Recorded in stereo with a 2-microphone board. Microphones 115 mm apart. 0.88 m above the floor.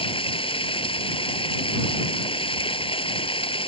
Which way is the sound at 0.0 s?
50° left (ahead or behind).